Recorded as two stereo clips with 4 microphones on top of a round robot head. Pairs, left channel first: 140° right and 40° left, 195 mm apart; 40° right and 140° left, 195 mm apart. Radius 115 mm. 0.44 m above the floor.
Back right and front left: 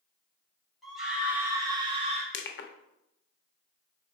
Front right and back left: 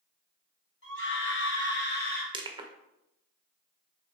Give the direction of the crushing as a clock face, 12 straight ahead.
5 o'clock.